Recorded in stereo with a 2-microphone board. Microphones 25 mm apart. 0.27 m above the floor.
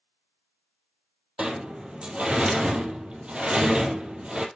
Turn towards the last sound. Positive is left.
turn(degrees=-45)  # may be behind; listen again after turning